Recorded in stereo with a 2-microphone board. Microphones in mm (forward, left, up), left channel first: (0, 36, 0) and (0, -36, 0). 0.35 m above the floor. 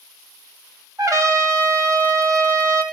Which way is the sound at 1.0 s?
50° right (ahead or behind).